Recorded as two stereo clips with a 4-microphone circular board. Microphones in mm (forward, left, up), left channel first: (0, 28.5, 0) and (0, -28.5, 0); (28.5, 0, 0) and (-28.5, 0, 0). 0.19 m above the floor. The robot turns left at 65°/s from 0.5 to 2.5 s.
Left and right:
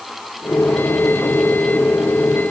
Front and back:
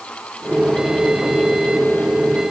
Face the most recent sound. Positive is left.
No sound to turn to.